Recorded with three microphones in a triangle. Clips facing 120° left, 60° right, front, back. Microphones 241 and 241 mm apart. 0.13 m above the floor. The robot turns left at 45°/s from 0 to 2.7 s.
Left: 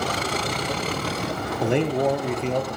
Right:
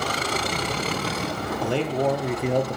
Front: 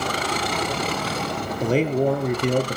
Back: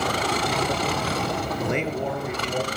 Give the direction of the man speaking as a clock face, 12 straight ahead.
10 o'clock.